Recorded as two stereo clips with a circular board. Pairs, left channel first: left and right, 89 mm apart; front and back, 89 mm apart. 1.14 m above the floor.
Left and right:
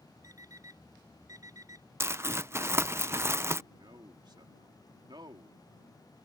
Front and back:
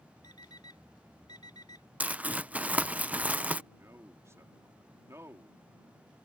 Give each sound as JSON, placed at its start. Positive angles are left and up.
{"t": 0.2, "sound": "an alarm clock", "azimuth_deg": -40}
{"t": 2.0, "sound": "crumpling", "azimuth_deg": -120}
{"t": 3.7, "sound": "a man speaking", "azimuth_deg": -120}